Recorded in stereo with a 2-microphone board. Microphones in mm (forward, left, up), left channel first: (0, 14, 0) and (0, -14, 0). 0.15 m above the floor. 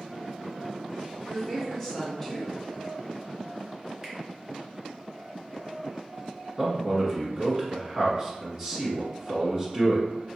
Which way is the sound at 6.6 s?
20° right (ahead or behind).